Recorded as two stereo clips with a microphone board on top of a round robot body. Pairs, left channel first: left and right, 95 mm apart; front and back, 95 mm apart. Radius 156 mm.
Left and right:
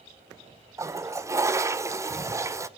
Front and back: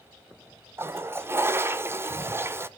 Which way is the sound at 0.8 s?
130° right.